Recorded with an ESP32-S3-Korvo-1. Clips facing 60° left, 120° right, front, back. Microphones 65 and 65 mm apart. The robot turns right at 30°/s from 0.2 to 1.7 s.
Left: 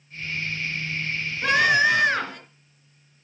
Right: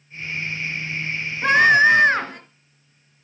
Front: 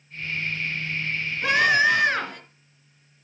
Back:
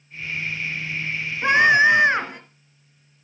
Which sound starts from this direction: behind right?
A scream, at 1.4 s.